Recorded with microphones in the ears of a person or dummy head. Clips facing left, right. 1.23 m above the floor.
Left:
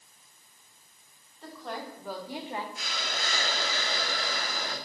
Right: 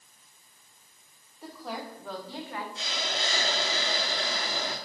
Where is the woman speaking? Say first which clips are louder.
Right 1 dB; 10° right (ahead or behind), 3 m; by 2.6 s 30° left (ahead or behind), 1.8 m.